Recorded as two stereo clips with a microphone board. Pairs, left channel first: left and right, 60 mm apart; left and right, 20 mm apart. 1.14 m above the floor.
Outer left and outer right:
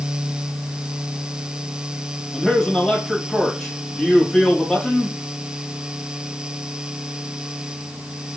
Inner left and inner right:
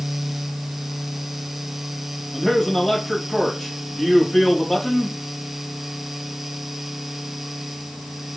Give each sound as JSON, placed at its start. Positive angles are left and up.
{"t": 2.3, "sound": "a man speaking", "side_deg": 10, "distance_m": 2.0}